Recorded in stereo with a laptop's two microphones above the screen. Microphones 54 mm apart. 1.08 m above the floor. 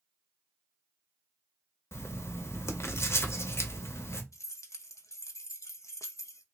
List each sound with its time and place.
1.9 s writing: 55° left (ahead or behind), 0.7 m
4.3 s keys jangling: 70° left (ahead or behind), 0.5 m